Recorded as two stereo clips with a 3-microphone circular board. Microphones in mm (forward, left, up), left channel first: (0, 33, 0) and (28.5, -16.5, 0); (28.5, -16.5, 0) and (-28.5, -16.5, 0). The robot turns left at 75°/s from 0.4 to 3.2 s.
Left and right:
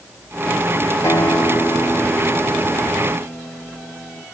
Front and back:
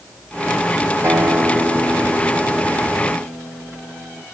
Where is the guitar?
145° left, 1.4 m; by 4.2 s 20° right, 1.4 m.